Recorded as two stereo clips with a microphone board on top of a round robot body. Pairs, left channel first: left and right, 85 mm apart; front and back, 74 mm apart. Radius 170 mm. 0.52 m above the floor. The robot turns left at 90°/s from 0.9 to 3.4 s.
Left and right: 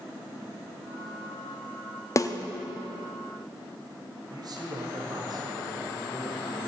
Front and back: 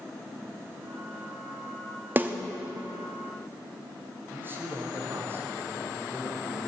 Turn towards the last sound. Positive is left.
turn(degrees=-125)